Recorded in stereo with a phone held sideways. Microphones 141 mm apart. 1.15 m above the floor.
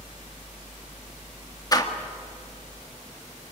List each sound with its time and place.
1.7 s a door slam: 30° left (ahead or behind), 1.8 m